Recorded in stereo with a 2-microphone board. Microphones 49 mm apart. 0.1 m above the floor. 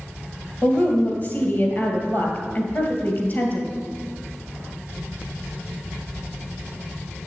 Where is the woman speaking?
40° left (ahead or behind), 1.8 m.